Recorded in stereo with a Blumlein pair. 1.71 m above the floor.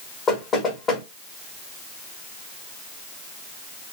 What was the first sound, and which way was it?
Knocking, 15° left.